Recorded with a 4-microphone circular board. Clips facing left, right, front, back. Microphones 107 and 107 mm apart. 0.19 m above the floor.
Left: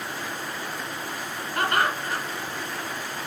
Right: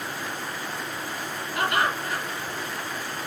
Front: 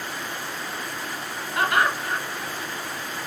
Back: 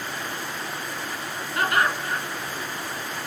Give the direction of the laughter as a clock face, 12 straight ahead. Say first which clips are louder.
Left 1 dB, front 1 dB; 10 o'clock.